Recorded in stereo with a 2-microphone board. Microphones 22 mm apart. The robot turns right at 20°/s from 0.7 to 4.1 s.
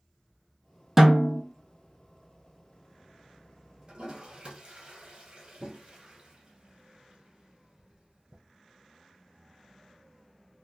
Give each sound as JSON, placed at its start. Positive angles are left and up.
{"t": 1.0, "sound": "a snare drum", "side_deg": -15, "distance_m": 1.1}
{"t": 3.9, "sound": "a toilet flushing", "side_deg": -50, "distance_m": 1.8}